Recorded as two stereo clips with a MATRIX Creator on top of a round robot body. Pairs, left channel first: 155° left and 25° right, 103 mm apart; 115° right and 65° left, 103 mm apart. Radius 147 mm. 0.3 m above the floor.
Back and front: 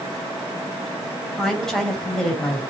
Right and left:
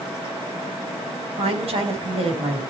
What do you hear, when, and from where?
1.4 s a woman speaking: 70° left, 4 m